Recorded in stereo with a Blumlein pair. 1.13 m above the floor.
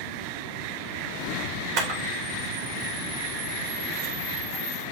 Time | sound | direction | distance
1.8 | a camera shutter | 40° right | 3.5 m